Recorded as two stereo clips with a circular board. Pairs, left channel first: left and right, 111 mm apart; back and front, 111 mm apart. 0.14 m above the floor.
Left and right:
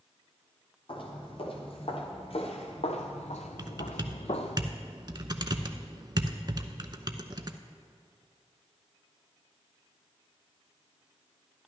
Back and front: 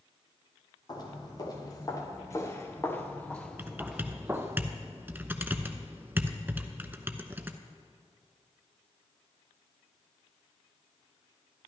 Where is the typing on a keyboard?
65° right, 0.6 m.